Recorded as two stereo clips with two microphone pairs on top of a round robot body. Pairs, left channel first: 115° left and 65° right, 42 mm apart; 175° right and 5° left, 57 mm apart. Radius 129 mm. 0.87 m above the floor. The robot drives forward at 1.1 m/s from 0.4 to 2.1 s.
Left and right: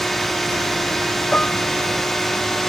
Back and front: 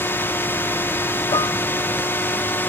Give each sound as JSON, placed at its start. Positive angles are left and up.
{"t": 0.0, "sound": "a drone", "azimuth_deg": -175}
{"t": 1.3, "sound": "dishes clattering", "azimuth_deg": 180}